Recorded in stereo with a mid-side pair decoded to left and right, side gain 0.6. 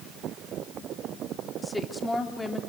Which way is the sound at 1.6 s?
10° left.